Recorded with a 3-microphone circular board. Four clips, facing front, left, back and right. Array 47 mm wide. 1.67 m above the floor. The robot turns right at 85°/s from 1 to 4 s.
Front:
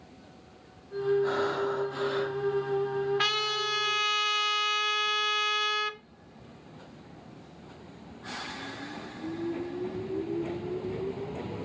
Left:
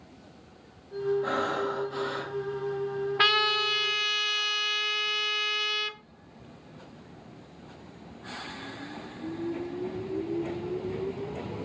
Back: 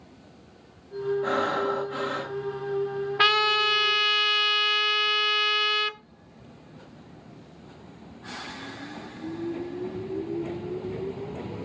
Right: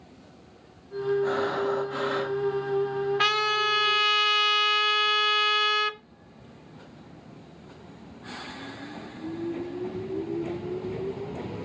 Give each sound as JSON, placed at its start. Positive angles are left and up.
{"t": 1.2, "sound": "breathing", "azimuth_deg": 170, "distance_m": 2.5}
{"t": 3.2, "sound": "a trumpet", "azimuth_deg": 145, "distance_m": 1.3}